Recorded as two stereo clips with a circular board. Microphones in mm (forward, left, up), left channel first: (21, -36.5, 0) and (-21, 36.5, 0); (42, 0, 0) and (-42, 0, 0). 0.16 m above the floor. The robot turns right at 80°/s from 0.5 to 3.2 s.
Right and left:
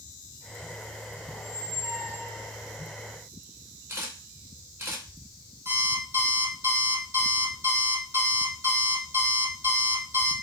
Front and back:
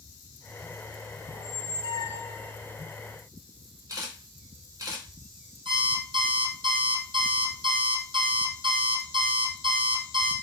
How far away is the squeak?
About 0.8 m.